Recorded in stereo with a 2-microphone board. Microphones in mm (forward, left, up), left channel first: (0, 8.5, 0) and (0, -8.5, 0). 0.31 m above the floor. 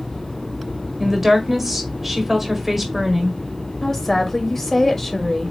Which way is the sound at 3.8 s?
20° left (ahead or behind).